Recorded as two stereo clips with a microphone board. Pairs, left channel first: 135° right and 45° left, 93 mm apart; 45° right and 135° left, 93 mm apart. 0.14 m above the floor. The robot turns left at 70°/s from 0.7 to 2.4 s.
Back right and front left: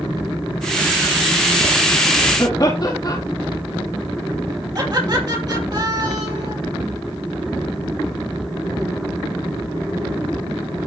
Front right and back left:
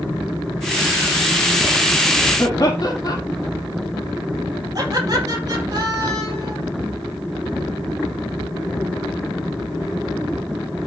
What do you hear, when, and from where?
2.4 s laughter: 90° right, 4.5 m
4.8 s laughter: 90° left, 4 m